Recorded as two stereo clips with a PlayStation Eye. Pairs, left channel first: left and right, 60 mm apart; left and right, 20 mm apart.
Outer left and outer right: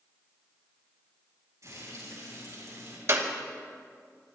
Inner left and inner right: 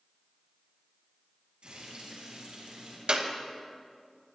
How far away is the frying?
About 7.5 m.